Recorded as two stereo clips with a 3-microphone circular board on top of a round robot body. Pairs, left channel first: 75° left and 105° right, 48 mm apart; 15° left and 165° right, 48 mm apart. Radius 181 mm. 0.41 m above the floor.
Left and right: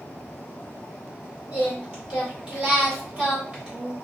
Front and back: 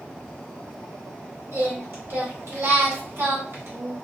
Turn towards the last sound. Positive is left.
turn(degrees=-165)